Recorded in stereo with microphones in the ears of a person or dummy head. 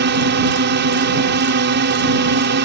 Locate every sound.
0.0 s a drone: 50° right (ahead or behind)